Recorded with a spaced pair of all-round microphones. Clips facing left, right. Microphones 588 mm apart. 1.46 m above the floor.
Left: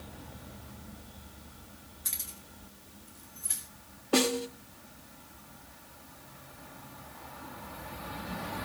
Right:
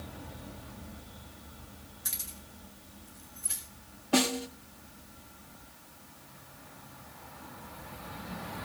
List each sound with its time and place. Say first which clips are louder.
2.0 s keys jangling: right 1 dB; 40° right (ahead or behind), 3 m; by 3.6 s 10° right (ahead or behind), 4.5 m
4.1 s a snare drum: left 1 dB; 10° right (ahead or behind), 1.1 m